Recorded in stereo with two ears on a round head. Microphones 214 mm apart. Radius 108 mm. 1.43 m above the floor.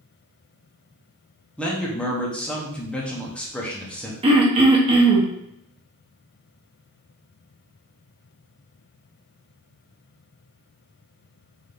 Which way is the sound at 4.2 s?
25° right (ahead or behind).